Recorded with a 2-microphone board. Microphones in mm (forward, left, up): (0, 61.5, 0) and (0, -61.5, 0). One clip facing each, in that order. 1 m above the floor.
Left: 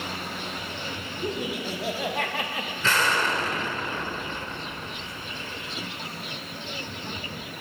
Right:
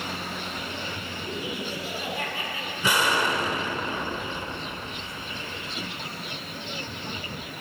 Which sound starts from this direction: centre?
An explosion, at 2.8 s.